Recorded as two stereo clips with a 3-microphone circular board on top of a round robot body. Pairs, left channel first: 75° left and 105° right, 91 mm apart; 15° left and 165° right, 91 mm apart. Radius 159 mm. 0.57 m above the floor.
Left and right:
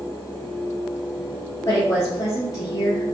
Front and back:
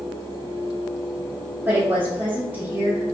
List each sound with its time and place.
1.6 s a woman speaking: 130° left, 1.1 m